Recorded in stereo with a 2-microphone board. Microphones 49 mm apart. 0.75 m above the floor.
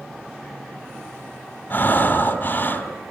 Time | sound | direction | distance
1.7 | breathing | 45° left (ahead or behind) | 3 m